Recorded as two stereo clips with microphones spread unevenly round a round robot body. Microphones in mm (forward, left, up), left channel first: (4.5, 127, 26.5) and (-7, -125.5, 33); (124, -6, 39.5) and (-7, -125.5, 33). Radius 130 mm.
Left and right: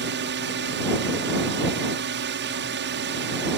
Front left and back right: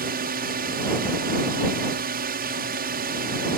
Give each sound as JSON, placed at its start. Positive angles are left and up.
{"t": 0.0, "sound": "a drone", "azimuth_deg": -130}